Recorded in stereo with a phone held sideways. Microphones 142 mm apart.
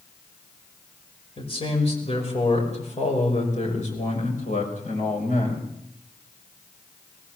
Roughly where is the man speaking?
Left.